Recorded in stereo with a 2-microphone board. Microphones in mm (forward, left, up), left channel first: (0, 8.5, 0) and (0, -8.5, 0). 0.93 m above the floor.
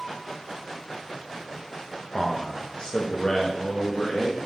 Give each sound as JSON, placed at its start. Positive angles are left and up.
{"t": 2.1, "sound": "a man speaking", "side_deg": 20, "distance_m": 0.9}